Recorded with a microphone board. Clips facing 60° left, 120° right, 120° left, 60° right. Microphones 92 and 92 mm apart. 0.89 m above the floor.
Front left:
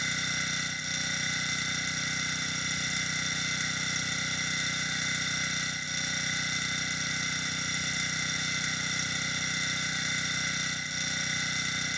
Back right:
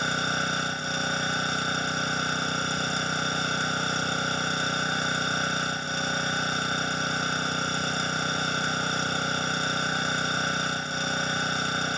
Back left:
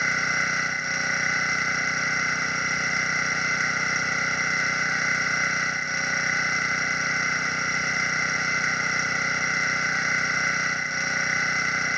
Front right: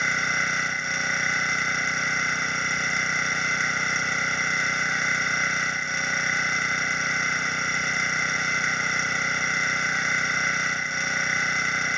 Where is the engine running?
150° right.